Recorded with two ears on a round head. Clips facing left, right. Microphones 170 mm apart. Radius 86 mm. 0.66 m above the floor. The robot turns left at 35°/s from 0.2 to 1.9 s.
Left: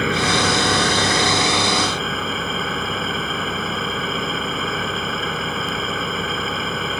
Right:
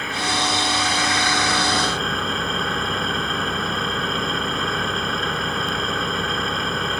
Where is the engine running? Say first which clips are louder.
Left 6 dB; 60° left; by 7.0 s straight ahead.